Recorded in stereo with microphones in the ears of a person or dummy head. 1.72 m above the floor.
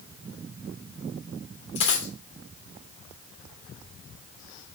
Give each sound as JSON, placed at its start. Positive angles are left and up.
{"t": 1.8, "sound": "a dropped coin", "side_deg": 35, "distance_m": 1.9}